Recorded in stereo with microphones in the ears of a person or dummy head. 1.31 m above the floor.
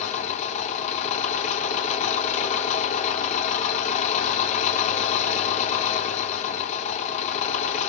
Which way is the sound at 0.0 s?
40° left (ahead or behind).